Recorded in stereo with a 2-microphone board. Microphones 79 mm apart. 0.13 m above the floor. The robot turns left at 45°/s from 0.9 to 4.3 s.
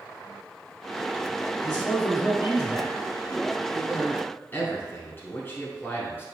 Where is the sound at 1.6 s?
25° right, 1.8 m; by 2.9 s 85° right, 1.8 m.